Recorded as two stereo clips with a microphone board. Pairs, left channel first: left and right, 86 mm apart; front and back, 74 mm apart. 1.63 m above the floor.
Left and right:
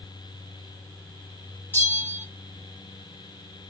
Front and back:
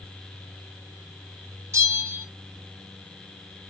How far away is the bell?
About 2 m.